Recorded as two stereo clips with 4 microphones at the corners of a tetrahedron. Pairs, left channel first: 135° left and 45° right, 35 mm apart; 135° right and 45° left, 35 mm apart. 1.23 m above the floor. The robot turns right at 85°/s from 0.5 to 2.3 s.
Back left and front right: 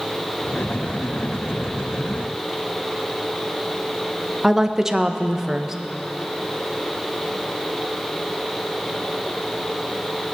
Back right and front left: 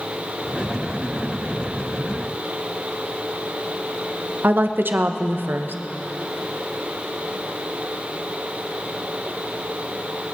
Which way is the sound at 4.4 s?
30° left.